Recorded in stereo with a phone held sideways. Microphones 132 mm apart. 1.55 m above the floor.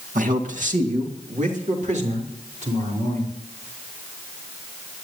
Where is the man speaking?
80° right, 1.9 m; by 3.3 s 60° right (ahead or behind), 5.5 m.